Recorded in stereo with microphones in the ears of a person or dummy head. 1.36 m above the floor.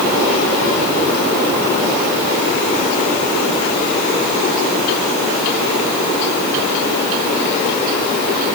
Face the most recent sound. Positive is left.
No sound to turn to.